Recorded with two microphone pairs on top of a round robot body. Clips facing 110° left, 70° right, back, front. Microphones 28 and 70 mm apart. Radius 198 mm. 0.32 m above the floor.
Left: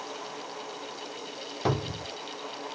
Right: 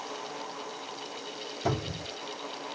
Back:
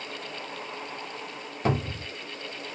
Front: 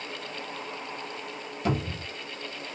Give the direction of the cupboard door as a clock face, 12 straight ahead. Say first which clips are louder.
Left 2 dB, back 2 dB; 7 o'clock.